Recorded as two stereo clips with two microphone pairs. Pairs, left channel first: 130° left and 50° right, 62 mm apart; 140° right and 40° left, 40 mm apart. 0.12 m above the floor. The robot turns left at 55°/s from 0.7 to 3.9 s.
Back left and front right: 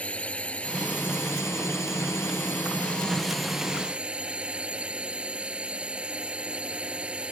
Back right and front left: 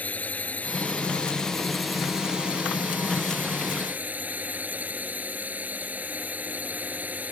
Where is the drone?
170° right; by 7.3 s 15° left.